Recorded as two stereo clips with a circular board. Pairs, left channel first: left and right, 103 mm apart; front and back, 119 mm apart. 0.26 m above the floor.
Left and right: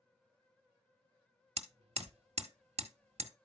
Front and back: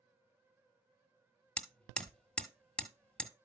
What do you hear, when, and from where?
1.6 s hammering: 80° right, 1.1 m